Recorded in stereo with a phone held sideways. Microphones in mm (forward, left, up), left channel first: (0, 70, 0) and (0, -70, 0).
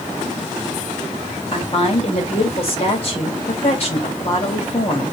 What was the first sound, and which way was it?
A woman speaking, 45° left (ahead or behind).